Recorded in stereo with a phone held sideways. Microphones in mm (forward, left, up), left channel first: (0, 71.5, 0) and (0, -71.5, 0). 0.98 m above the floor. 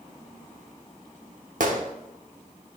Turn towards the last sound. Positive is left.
turn(degrees=-65)  # may be behind; listen again after turning